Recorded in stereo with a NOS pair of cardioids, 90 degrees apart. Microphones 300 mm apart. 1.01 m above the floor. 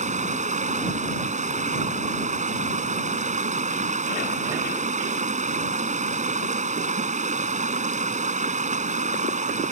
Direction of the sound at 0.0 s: 25° right.